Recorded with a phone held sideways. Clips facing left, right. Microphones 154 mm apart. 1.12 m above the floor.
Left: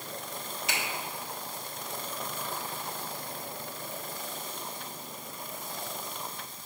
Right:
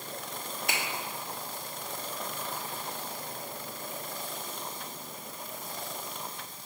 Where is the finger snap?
55° right (ahead or behind), 1.2 m.